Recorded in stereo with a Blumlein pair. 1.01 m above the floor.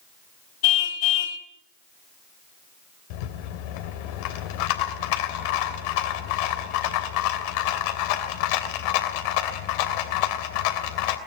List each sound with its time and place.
0.6 s a car horn: 50° left, 3 m
3.1 s a rattle: 45° left, 3 m